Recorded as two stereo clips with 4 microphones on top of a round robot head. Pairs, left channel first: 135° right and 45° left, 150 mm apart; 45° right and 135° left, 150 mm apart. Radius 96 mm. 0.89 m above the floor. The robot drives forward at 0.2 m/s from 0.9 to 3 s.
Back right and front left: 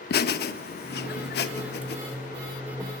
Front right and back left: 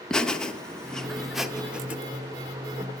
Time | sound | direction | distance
0.1 | laughter | 130° right | 0.7 m